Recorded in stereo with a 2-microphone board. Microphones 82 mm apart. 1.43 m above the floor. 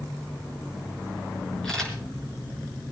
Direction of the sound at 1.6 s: 10° left (ahead or behind).